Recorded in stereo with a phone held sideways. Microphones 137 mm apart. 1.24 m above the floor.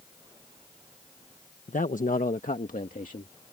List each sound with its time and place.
1.7 s a man speaking: 75° left (ahead or behind); by 3.3 s 85° left